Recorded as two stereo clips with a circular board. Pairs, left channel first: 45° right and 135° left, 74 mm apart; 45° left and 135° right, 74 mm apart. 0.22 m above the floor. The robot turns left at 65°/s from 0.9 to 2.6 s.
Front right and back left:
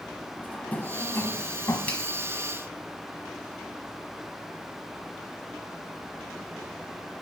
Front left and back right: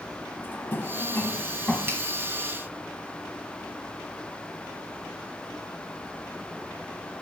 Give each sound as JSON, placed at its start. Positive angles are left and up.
{"t": 0.4, "sound": "a drawer", "azimuth_deg": 10, "distance_m": 1.0}
{"t": 1.9, "sound": "a finger snap", "azimuth_deg": -95, "distance_m": 1.2}